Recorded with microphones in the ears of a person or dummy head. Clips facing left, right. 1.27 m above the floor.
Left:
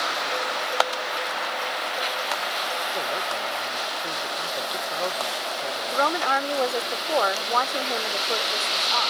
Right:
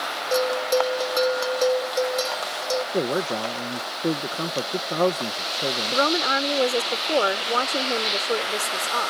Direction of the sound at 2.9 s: 65° right (ahead or behind).